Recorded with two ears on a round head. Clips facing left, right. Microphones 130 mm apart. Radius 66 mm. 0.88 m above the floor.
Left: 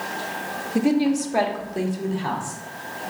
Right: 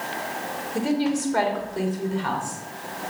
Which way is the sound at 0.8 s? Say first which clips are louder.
Left 4 dB; 15° left (ahead or behind).